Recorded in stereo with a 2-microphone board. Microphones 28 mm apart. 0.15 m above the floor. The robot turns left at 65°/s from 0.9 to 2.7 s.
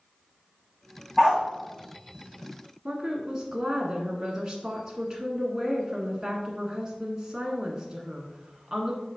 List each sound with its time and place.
1.2 s a dog barking: 20° right (ahead or behind), 2 m; by 1.4 s 35° right (ahead or behind), 2 m
2.9 s a woman speaking: 30° right (ahead or behind), 1.4 m